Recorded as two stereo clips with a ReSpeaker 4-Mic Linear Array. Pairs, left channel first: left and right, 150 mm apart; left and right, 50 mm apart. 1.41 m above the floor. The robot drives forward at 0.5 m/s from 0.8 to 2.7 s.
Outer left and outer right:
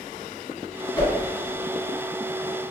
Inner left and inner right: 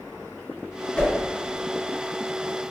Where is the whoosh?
25° left (ahead or behind), 1.7 m.